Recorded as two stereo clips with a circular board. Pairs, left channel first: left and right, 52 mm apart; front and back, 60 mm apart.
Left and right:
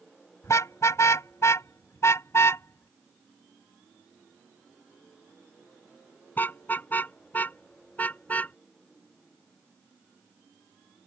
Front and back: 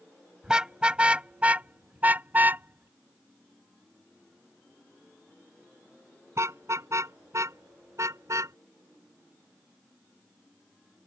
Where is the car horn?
100° left; by 8.6 s 150° left.